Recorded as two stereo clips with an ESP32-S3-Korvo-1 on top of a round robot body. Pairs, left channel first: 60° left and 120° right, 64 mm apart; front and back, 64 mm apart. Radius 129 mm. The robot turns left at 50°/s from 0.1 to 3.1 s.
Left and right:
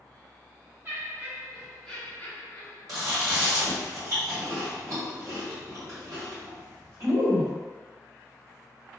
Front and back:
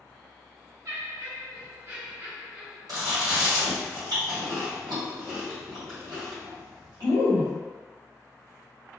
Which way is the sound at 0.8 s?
175° right.